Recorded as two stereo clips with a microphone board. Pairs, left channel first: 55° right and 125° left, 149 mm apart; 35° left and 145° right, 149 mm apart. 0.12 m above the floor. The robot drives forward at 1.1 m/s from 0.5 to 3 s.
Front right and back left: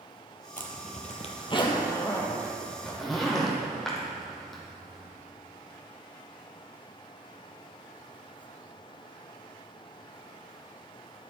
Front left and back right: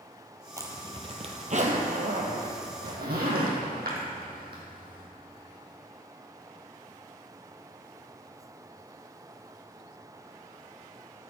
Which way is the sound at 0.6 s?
75° right.